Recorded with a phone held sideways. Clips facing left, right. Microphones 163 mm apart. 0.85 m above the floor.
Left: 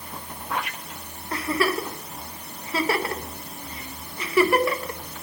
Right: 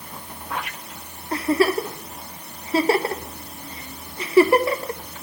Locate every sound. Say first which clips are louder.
1.3 s a giggle: right 5 dB; 30° right (ahead or behind), 1.0 m